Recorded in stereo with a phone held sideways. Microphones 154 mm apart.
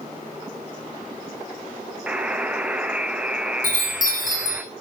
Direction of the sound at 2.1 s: 10° right (ahead or behind).